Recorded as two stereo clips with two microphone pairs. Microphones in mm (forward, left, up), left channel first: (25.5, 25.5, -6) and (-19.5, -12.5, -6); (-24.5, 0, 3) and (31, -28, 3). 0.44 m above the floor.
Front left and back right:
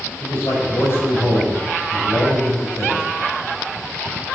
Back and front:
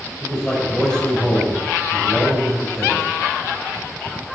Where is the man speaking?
75° left, 2.5 m.